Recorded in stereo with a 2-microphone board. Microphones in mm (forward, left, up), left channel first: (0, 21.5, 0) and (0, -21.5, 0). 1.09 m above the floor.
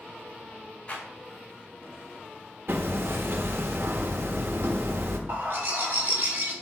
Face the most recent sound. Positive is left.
turn(degrees=-55)  # may be behind; listen again after turning